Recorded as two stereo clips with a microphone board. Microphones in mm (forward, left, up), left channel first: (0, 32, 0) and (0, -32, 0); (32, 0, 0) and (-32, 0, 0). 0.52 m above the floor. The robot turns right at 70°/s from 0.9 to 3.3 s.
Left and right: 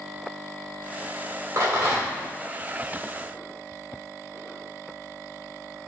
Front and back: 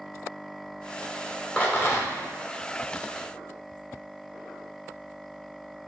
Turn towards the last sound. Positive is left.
turn(degrees=55)